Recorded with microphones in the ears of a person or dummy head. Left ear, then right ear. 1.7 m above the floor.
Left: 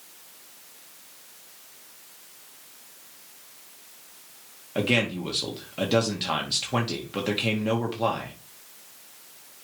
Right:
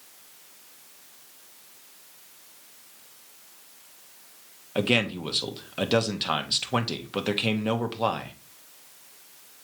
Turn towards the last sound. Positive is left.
turn(degrees=-30)  # may be behind; listen again after turning